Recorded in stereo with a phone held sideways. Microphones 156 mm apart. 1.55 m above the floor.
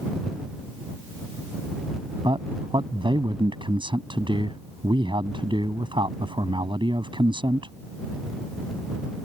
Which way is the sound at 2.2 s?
30° right (ahead or behind).